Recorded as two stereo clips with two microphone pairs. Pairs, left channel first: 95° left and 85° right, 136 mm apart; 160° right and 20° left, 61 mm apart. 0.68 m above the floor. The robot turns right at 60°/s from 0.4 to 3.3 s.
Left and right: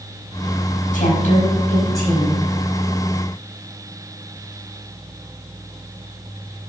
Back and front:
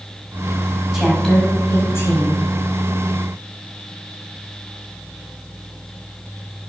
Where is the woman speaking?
95° left, 5 m; by 2.4 s 175° right, 5 m.